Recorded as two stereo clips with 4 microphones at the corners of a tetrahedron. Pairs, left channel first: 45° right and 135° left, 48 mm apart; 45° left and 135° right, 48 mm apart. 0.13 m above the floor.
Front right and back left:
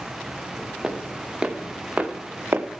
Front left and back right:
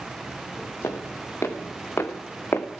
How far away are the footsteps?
About 1.7 m.